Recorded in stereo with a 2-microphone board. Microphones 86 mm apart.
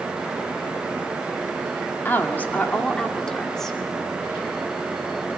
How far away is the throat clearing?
No throat clearing in this recording.